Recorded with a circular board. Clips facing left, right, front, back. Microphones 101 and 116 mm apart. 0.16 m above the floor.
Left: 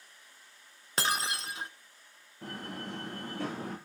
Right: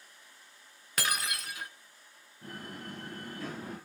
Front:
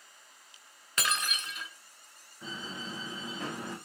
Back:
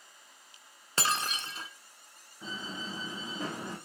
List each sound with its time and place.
1.0 s breaking glass: 135° left, 1.1 m
2.4 s a door slam: 100° left, 8 m